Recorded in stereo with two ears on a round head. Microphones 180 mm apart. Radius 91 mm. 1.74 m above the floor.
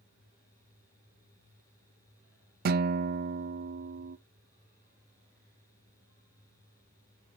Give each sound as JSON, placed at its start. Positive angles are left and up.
{"t": 2.6, "sound": "a guitar", "side_deg": -50, "distance_m": 0.5}